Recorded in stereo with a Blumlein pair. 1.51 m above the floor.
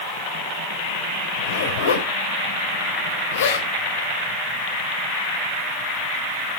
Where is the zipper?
65° left, 4.5 m.